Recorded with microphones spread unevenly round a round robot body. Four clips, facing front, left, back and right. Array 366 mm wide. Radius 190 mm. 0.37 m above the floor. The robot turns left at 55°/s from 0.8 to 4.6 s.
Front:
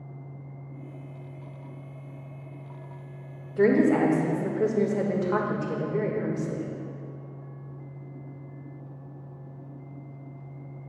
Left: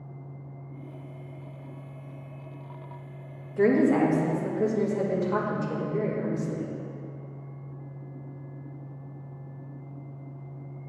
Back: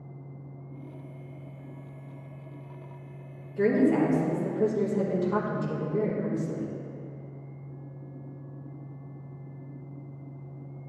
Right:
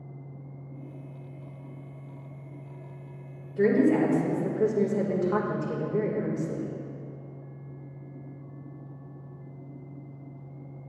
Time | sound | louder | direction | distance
3.6 | a woman speaking | left 1 dB, front 2 dB | 10° left | 1.2 m